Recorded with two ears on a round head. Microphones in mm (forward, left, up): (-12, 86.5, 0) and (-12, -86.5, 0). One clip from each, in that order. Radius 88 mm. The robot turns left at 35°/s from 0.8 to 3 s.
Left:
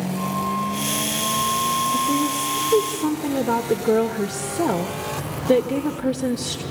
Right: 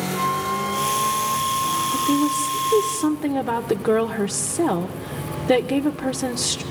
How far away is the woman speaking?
About 1.2 m.